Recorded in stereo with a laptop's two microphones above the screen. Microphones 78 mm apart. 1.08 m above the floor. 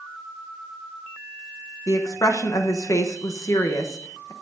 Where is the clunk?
No clunk in this recording.